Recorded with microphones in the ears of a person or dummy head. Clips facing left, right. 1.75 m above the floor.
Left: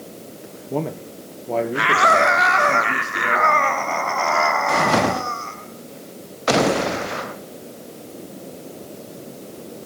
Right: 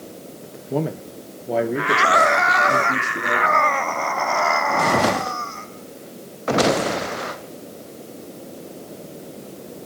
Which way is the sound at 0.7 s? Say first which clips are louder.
Right 1 dB; 5° right (ahead or behind).